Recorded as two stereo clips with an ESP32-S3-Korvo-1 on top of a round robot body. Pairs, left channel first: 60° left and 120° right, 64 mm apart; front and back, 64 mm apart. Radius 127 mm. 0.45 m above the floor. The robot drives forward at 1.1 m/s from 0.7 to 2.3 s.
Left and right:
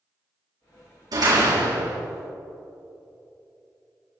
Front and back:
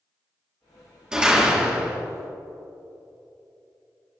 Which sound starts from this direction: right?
A door slam, at 1.1 s.